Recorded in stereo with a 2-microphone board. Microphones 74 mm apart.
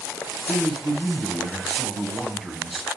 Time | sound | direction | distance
0.5 | a man speaking | centre (ahead or behind) | 1.6 m